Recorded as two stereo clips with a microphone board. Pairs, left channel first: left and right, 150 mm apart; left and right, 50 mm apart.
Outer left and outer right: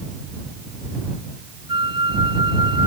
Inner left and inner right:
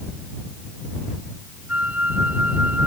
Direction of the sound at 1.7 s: 30° right (ahead or behind).